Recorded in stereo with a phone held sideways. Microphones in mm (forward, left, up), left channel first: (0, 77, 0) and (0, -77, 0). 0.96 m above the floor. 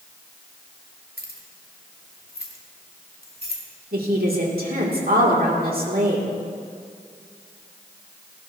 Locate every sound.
1.2 s keys jangling: 80° left, 1.8 m
3.9 s a woman speaking: 75° right (ahead or behind), 2.5 m